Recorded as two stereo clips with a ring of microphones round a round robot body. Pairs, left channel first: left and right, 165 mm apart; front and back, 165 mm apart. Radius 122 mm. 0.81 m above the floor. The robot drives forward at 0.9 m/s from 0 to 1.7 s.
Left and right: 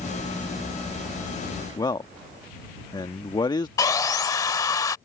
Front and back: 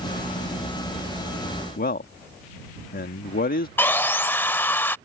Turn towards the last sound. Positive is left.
turn(degrees=60)